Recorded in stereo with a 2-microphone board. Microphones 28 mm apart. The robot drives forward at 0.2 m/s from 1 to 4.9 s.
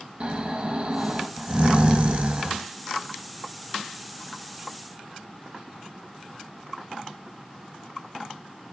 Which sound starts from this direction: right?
Snoring, at 0.2 s.